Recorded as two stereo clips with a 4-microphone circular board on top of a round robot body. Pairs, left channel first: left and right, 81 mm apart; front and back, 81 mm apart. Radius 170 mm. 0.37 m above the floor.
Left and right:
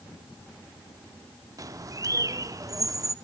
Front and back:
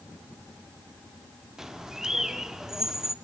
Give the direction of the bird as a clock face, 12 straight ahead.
3 o'clock.